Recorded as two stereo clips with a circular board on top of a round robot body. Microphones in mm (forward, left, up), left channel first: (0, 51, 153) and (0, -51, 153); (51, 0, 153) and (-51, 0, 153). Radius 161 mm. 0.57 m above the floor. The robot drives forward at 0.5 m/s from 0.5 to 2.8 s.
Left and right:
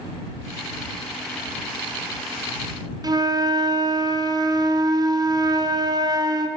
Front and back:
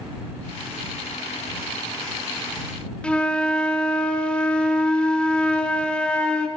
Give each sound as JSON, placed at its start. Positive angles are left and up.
{"t": 3.0, "sound": "a flute", "azimuth_deg": -75, "distance_m": 1.3}